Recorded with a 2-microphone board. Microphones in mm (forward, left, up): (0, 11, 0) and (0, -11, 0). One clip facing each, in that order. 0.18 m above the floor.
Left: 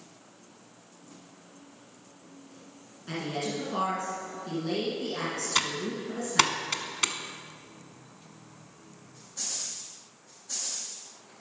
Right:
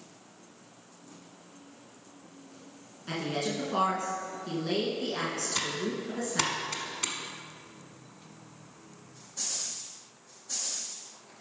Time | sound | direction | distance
3.1 | a woman speaking | 10° right (ahead or behind) | 1.9 m
5.5 | typing on a keyboard | 35° left (ahead or behind) | 0.8 m